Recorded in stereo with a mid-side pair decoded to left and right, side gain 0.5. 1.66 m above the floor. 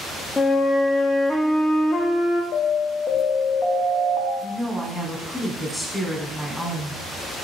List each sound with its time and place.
0.4 s a flute: 25° left, 0.6 m
2.5 s an alarm: 55° left, 0.7 m
4.4 s a woman speaking: straight ahead, 1.0 m